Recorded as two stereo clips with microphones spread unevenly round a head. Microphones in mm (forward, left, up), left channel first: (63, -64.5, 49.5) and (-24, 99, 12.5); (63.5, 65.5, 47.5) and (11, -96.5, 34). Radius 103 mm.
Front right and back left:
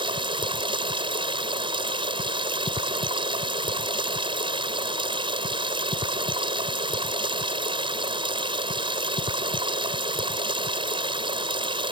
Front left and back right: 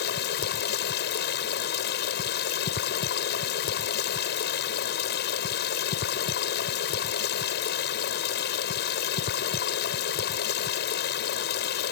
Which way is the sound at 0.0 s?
50° left.